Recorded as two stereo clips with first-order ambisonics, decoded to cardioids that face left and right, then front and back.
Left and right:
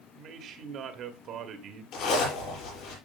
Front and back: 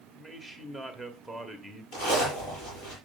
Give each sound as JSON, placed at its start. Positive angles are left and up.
{"t": 0.1, "sound": "a man speaking", "azimuth_deg": -80, "distance_m": 1.3}
{"t": 1.9, "sound": "a zipper", "azimuth_deg": 50, "distance_m": 6.0}